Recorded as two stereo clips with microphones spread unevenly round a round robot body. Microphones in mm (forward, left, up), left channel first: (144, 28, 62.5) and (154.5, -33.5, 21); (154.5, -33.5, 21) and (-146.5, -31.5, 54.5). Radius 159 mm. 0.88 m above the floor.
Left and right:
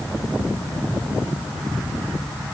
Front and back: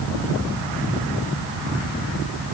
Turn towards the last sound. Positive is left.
No sound to turn to.